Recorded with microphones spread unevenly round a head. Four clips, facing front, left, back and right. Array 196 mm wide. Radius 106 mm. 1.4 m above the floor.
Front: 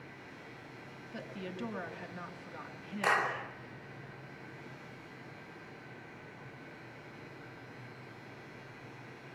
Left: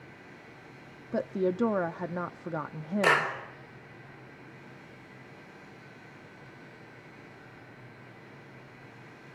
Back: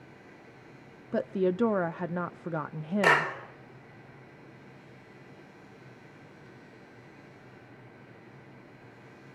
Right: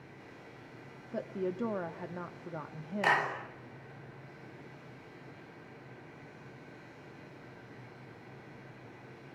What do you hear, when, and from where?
1.1 s a woman speaking: 135° left, 0.6 m
3.0 s a clap: 175° left, 3 m